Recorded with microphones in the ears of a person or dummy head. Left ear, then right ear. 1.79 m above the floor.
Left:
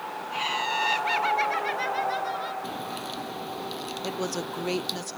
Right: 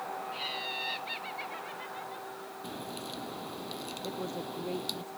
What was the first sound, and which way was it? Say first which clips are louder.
Laughter: left 11 dB; 45° left (ahead or behind).